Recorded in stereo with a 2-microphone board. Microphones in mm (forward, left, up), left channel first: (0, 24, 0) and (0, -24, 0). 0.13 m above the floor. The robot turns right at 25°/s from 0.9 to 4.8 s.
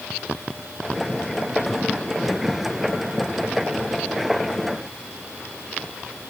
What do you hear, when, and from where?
Only background noise.